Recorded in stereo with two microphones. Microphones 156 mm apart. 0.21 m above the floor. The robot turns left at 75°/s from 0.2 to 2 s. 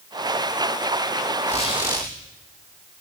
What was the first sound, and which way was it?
A squeak, 50° left.